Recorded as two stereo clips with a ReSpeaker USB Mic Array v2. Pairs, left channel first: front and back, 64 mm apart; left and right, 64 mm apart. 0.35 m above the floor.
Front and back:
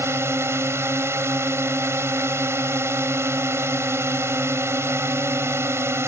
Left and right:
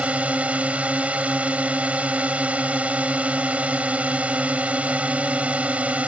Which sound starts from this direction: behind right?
A drone, at 0.0 s.